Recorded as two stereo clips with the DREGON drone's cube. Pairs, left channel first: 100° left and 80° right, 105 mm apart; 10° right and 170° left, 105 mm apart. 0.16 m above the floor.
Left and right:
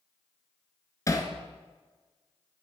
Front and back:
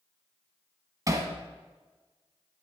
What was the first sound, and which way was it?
Hammering, 135° left.